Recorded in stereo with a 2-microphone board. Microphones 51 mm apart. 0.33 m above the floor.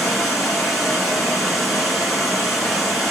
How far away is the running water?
About 2.5 m.